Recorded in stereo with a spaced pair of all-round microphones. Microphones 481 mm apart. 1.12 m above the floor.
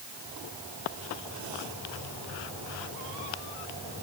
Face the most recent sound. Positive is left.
No sound to turn to.